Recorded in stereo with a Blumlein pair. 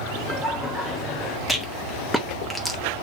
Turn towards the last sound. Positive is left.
turn(degrees=5)